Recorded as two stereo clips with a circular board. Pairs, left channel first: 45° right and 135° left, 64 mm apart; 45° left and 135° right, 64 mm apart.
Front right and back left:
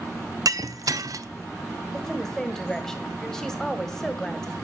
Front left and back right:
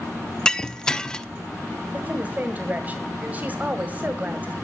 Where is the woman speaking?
115° right, 1.5 m.